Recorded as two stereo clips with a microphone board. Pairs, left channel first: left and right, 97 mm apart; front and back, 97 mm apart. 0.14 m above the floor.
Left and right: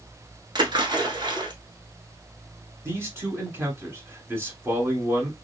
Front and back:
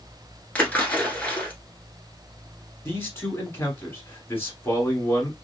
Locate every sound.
0.6 s a splash: 70° right, 1.2 m
2.9 s a man speaking: 50° right, 1.3 m